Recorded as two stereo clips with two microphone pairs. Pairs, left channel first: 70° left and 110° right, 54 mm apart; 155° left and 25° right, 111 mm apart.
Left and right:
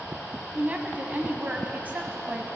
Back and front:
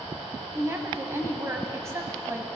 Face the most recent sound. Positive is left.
turn(degrees=-70)